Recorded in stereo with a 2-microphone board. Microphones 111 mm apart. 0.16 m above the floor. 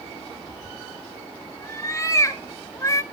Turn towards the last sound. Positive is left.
turn(degrees=25)  # may be behind; listen again after turning